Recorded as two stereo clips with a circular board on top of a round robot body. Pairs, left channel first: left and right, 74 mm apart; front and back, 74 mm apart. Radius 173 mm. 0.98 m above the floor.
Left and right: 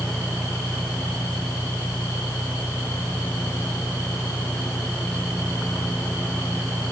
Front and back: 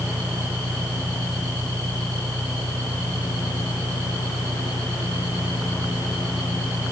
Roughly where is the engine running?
Behind.